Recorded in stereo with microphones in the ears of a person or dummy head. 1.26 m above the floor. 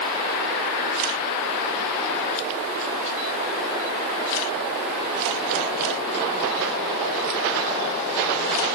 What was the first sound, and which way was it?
Only background noise.